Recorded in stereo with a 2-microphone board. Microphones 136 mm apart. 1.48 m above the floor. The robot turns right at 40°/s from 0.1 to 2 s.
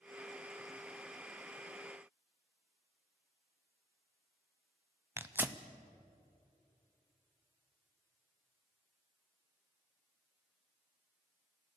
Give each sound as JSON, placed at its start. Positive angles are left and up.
{"t": 5.2, "sound": "tearing paper", "side_deg": -15, "distance_m": 0.8}